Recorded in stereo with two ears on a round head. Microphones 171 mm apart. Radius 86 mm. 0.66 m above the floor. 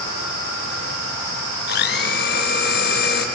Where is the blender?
60° left (ahead or behind), 1.8 m.